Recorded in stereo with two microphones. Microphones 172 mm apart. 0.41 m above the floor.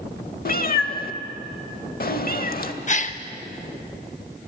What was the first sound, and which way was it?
A cat meowing, 55° left (ahead or behind).